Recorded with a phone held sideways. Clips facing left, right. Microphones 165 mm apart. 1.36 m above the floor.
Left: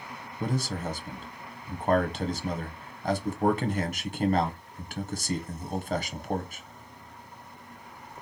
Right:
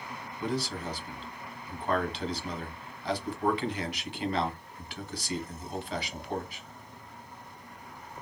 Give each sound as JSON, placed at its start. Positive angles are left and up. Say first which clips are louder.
{"t": 0.4, "sound": "a man speaking", "louder": "left 2 dB", "side_deg": 45, "distance_m": 0.9}